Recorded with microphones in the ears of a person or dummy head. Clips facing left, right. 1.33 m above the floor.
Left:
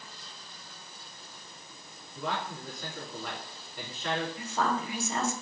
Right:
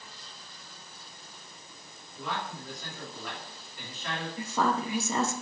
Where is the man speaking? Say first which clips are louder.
Left 2 dB; 75° left (ahead or behind), 3.5 m.